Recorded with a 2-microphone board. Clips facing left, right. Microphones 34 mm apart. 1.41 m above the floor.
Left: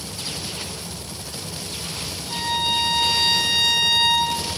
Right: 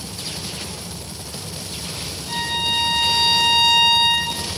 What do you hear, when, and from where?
2.3 s a violin: 65° right (ahead or behind), 2.0 m